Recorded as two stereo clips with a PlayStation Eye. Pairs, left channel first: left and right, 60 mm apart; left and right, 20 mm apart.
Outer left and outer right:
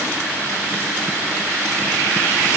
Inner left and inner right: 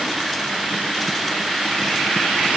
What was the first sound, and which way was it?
Only background noise.